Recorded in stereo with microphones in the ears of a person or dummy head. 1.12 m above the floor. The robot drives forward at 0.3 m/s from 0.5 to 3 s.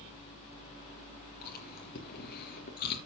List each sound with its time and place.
1.4 s chewing: 55° left (ahead or behind), 3.5 m; by 3.0 s 60° left (ahead or behind), 3.5 m